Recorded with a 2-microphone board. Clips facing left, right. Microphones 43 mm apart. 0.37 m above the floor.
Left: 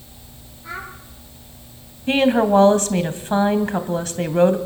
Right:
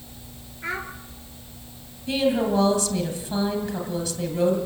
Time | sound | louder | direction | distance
0.6 | a child speaking | right 2 dB | 80° right | 4.5 m
2.1 | a woman speaking | left 6 dB | 50° left (ahead or behind) | 1.8 m